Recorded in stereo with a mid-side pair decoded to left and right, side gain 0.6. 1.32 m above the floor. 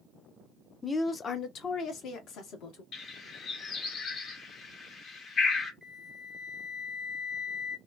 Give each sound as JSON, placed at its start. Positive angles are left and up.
{"t": 0.8, "sound": "a woman speaking", "azimuth_deg": 10, "distance_m": 0.7}
{"t": 2.9, "sound": "a bird", "azimuth_deg": 45, "distance_m": 1.1}
{"t": 5.8, "sound": "a flute", "azimuth_deg": 10, "distance_m": 0.6}